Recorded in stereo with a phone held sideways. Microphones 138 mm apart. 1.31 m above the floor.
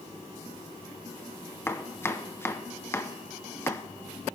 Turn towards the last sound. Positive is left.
turn(degrees=20)  # may be behind; listen again after turning